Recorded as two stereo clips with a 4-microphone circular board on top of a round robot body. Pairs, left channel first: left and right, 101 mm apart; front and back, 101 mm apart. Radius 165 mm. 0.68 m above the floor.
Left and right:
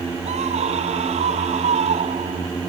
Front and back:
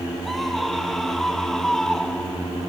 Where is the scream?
90° right; by 2.5 s 85° right.